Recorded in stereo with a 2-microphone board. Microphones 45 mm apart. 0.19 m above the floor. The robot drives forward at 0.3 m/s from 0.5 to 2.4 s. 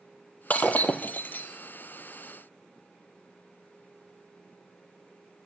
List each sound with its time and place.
0.5 s breaking glass: 35° left (ahead or behind), 1.1 m; by 1.5 s 45° left (ahead or behind), 0.9 m